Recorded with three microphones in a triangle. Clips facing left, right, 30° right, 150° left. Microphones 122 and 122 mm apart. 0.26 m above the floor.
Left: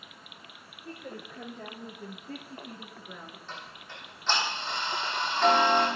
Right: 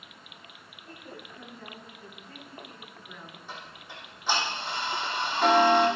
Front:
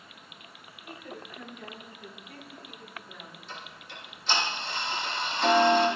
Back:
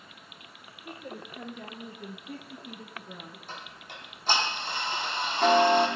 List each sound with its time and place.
0.8 s a woman speaking: 115° left, 5 m; by 3.4 s 165° left, 4 m
3.5 s ticking: 165° right, 8.5 m